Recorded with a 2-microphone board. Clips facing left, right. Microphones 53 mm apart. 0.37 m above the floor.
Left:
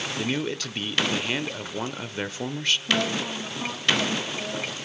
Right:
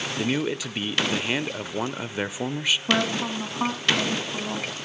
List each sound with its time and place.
0.2 s a man speaking: 10° right (ahead or behind), 0.8 m
2.9 s a woman speaking: 60° right (ahead or behind), 3.5 m